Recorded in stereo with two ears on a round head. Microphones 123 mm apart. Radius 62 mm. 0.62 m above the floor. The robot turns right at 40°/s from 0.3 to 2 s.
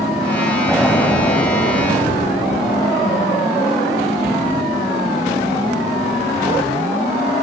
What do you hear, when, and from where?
0.7 s an explosion: straight ahead, 2 m; by 3.3 s 50° left, 2 m